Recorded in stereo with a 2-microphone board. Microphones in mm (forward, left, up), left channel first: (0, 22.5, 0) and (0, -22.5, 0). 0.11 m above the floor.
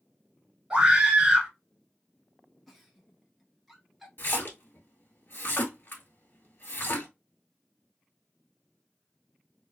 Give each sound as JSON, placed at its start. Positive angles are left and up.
{"t": 0.7, "sound": "a scream", "side_deg": -20, "distance_m": 1.3}
{"t": 2.7, "sound": "a giggle", "side_deg": 0, "distance_m": 0.9}
{"t": 4.2, "sound": "a splash", "side_deg": 55, "distance_m": 1.0}